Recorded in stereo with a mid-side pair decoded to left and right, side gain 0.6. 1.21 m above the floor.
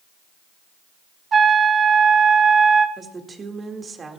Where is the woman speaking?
25° right, 2.0 m.